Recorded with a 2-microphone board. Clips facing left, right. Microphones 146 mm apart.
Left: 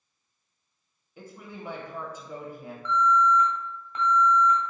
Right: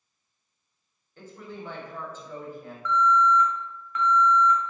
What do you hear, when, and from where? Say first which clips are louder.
1.2 s a woman speaking: right 2 dB; 10° left (ahead or behind), 0.9 m
2.9 s an alarm: right 1 dB; 30° left (ahead or behind), 1.8 m